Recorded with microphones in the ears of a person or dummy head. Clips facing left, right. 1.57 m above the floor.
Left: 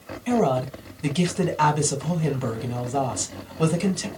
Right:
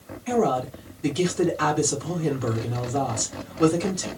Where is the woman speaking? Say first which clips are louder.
Left 1 dB; 60° left (ahead or behind), 2 m.